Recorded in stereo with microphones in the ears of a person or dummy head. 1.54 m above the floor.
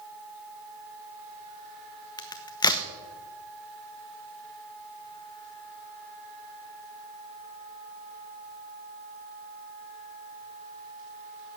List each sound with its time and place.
2.2 s a crack: 20° left (ahead or behind), 1.1 m